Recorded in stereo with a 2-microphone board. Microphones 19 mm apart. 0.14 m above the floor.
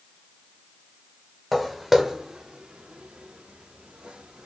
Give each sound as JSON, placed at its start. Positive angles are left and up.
{"t": 1.5, "sound": "footsteps", "side_deg": 0, "distance_m": 0.9}